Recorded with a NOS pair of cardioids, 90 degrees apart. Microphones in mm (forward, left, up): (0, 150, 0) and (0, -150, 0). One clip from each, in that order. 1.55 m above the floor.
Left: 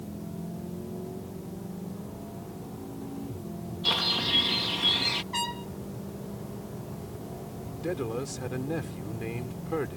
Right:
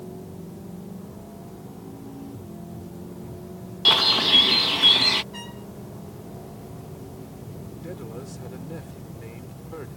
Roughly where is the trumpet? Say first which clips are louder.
Left 8 dB; left.